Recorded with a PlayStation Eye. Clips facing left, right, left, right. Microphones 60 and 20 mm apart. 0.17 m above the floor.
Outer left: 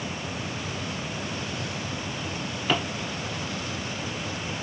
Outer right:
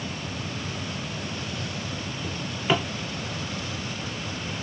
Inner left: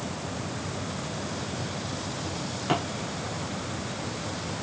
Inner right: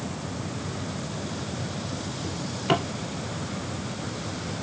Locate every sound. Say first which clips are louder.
2.2 s a drawer: outer right 2 dB, inner right 3 dB; 10° right (ahead or behind), 1.1 m